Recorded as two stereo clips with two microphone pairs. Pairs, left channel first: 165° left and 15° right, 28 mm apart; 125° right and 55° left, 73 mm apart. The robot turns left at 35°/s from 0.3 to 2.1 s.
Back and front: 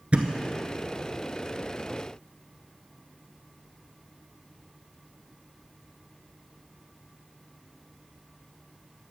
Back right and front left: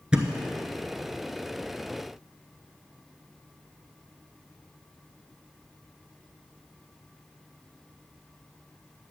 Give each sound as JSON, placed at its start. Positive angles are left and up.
{"t": 0.1, "sound": "a thud", "azimuth_deg": -15, "distance_m": 0.9}